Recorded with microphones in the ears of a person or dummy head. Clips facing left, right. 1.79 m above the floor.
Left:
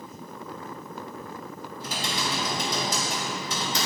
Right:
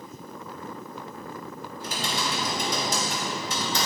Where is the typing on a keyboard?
70° right (ahead or behind), 2.5 m.